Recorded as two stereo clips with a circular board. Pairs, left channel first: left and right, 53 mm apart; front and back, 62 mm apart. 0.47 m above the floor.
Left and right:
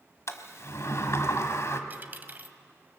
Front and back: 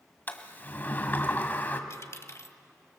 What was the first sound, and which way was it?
A sliding door, 60° left.